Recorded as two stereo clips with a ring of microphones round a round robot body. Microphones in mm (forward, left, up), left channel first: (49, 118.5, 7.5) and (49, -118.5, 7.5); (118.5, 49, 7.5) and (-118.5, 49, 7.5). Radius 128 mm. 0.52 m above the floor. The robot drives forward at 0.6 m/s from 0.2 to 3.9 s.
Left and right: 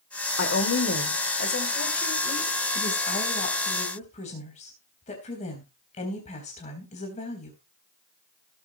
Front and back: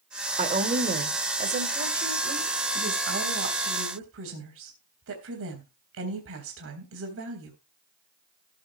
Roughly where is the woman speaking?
Behind left.